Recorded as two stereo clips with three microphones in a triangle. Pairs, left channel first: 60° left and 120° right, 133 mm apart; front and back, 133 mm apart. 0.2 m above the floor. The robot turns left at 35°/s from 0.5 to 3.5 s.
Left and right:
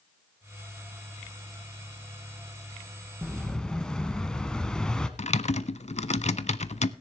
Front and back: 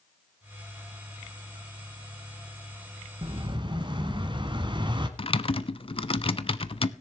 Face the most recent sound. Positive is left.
turn(degrees=40)